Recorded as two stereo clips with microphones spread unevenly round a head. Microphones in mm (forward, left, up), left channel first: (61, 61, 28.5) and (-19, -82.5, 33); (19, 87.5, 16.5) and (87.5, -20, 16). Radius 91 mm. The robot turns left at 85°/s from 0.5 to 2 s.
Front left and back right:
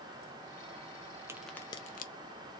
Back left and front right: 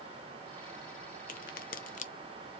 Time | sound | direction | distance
1.3 | a crack | 165° left | 0.6 m